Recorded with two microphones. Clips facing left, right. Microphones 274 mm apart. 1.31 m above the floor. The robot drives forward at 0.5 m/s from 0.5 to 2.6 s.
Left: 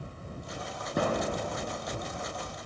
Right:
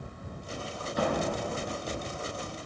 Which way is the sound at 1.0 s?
60° left (ahead or behind).